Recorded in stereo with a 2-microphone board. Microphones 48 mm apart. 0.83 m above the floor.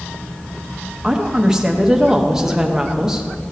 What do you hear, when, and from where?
1.0 s a woman speaking: 15° right (ahead or behind), 1.0 m